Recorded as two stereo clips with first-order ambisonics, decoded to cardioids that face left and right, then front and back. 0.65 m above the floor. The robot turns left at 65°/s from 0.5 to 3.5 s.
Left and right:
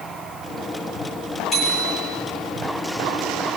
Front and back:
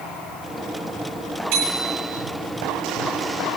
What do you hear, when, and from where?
1.5 s a bicycle bell: 170° left, 9.5 m; by 2.1 s 130° left, 9.5 m